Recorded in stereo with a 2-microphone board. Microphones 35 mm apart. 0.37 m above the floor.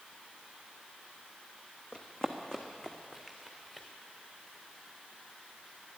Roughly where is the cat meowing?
I don't hear a cat meowing.